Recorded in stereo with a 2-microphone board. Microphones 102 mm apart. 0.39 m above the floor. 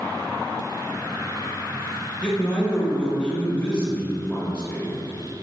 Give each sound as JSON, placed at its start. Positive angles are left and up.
{"t": 2.2, "sound": "a man speaking", "side_deg": 10, "distance_m": 1.2}